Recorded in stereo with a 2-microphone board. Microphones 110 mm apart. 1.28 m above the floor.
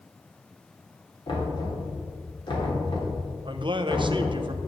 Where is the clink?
I don't hear a clink.